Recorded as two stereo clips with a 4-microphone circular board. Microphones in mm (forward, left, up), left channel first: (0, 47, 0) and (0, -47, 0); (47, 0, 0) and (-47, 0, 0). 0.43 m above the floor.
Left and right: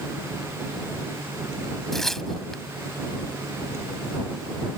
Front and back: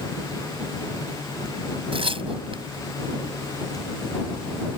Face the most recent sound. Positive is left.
turn(degrees=175)